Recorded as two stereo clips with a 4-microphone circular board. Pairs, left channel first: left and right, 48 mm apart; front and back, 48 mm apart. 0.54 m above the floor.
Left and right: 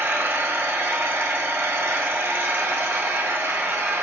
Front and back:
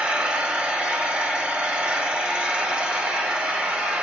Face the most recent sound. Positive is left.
turn(degrees=-120)